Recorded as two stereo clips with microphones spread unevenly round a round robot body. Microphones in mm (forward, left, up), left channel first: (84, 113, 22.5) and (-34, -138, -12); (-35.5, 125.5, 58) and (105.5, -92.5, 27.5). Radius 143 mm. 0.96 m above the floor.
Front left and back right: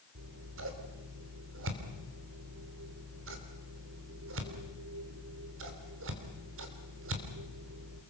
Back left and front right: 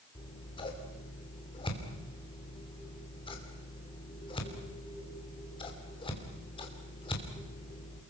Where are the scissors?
165° right, 3 m.